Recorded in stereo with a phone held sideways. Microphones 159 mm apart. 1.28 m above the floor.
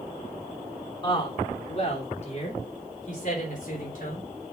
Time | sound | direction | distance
1.0 | a woman speaking | 30° left (ahead or behind) | 3 m